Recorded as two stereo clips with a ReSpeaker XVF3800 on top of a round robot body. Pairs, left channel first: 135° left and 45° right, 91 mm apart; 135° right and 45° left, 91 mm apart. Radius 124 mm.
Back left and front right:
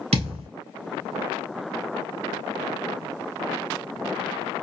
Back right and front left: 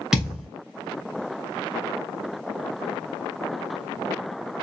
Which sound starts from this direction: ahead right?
A thud, at 0.1 s.